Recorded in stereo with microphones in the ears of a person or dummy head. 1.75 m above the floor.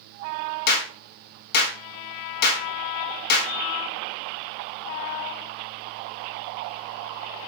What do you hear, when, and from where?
0.7 s a clap: 65° left (ahead or behind), 3 m